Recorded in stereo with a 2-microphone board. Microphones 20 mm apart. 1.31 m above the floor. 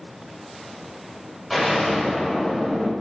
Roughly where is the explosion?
Centre.